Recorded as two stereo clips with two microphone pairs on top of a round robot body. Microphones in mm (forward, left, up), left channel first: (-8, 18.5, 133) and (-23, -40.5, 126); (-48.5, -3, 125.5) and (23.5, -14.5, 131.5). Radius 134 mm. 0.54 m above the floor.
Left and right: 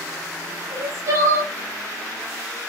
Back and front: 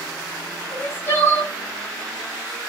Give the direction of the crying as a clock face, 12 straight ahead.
4 o'clock.